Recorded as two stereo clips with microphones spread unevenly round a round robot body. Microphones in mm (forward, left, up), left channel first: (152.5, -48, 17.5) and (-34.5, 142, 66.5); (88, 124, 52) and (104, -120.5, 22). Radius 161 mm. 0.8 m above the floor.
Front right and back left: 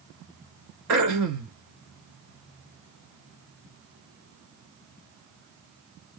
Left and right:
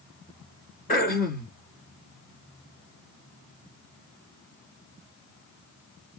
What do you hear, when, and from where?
0.9 s throat clearing: 155° left, 1.4 m